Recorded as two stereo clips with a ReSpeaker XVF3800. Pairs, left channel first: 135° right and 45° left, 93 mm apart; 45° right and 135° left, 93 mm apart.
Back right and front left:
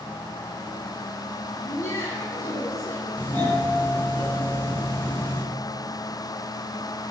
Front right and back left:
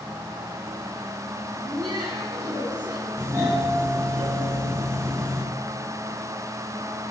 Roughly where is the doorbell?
Behind.